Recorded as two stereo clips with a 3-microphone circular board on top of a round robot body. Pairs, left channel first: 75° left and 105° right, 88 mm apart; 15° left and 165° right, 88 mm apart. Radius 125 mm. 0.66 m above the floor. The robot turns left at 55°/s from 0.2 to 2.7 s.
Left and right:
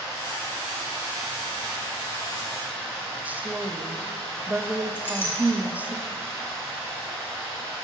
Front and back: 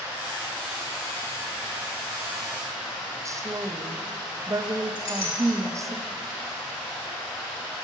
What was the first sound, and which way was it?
Running water, 130° left.